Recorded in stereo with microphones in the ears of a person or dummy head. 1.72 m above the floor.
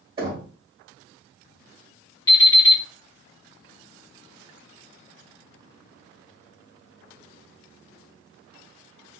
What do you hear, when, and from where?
0.2 s knocking: 20° right (ahead or behind), 2 m
2.3 s an alarm clock: 25° left (ahead or behind), 1.6 m